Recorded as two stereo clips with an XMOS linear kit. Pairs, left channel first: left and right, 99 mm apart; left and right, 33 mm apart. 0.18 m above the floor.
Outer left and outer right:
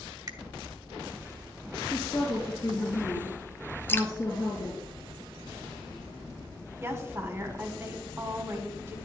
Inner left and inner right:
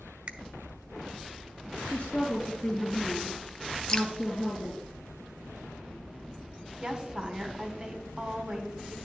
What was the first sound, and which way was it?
A finger snap, 40° right (ahead or behind).